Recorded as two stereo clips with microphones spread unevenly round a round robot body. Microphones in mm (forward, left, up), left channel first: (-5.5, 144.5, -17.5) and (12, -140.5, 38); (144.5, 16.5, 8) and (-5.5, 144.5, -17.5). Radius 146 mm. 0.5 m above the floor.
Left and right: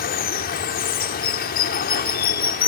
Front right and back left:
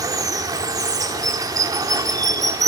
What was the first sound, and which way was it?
Running water, 85° left.